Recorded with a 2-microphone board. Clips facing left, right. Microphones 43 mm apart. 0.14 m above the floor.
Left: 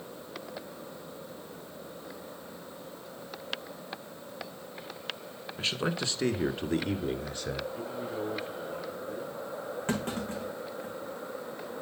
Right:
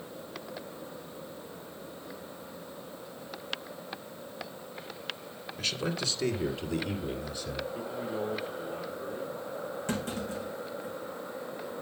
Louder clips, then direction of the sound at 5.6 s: Left 2 dB; 25° left (ahead or behind).